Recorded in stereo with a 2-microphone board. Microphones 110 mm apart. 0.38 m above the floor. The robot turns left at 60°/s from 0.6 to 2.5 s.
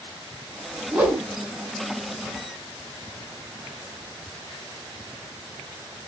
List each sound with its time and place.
0.9 s a whoosh: 10° right (ahead or behind), 3.5 m; by 1.2 s 30° right (ahead or behind), 3.5 m